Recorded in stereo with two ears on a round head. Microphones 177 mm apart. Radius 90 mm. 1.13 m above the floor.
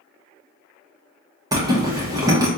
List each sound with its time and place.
1.5 s a zipper: 20° right (ahead or behind), 0.9 m